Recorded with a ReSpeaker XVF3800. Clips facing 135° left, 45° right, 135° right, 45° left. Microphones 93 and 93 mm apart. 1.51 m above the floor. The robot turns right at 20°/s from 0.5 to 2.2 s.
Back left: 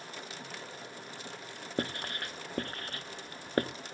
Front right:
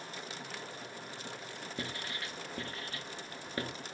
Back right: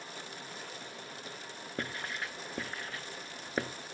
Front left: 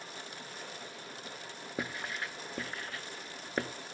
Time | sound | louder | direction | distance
1.8 | writing | back left 7 dB, front left 1 dB | 125° left | 0.8 m